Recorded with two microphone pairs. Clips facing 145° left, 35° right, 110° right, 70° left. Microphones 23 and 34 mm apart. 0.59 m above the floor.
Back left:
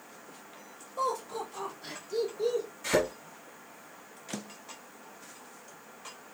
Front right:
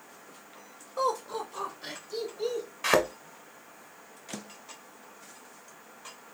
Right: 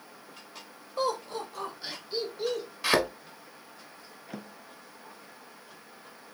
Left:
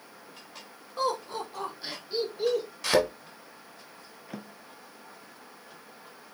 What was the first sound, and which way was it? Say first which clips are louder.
Laughter: front right 2 dB, left 1 dB; straight ahead.